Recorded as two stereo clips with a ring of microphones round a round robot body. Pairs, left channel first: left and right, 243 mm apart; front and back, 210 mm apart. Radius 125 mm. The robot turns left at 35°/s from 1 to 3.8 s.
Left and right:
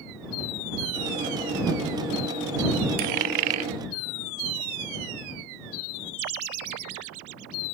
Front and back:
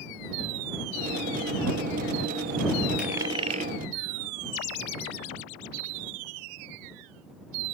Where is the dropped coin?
95° right; by 3.7 s 120° right.